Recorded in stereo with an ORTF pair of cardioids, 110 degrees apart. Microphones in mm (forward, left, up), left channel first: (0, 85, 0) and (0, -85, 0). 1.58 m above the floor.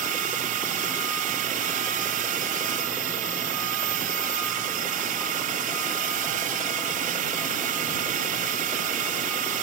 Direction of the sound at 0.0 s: 60° right.